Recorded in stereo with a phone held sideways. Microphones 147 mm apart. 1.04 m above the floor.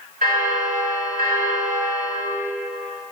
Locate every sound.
0.2 s a bell: 70° right (ahead or behind), 1.8 m